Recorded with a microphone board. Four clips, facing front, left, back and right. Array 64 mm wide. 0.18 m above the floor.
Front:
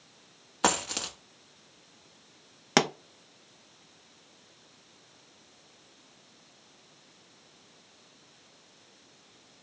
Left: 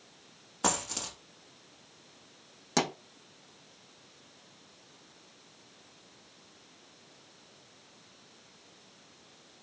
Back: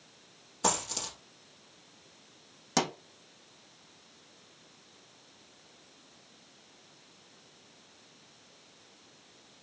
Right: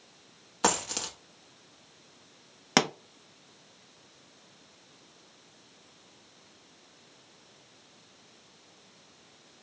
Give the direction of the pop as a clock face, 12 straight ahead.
1 o'clock.